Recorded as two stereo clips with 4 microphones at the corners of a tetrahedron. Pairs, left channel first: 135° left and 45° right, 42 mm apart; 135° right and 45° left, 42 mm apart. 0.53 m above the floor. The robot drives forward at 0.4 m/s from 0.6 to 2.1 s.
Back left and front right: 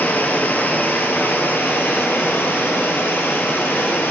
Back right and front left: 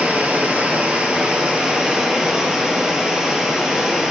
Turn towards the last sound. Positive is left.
turn(degrees=120)